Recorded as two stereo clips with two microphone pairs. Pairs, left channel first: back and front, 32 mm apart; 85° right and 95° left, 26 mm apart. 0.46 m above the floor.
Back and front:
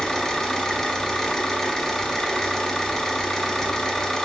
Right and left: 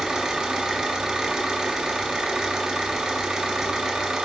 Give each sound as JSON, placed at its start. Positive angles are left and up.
{"t": 0.0, "sound": "an engine running", "azimuth_deg": 120, "distance_m": 0.7}